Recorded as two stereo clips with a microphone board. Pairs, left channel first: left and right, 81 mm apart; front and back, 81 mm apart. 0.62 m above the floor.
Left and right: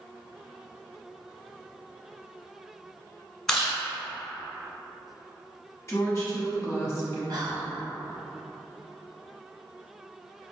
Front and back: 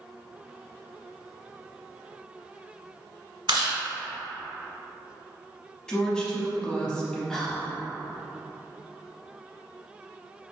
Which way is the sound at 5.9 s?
70° left.